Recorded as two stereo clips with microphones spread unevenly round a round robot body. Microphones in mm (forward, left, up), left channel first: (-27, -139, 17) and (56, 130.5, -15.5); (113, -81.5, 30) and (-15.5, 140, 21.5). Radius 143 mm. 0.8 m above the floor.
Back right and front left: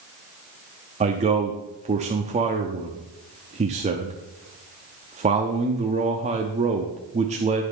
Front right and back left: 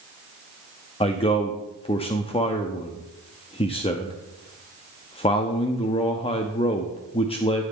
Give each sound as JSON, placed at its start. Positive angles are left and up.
{"t": 1.0, "sound": "a man speaking", "azimuth_deg": 10, "distance_m": 0.9}